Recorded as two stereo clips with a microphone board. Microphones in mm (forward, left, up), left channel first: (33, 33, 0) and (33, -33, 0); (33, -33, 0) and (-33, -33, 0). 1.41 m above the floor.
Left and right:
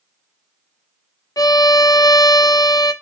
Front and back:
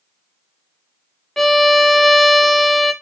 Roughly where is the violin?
Left.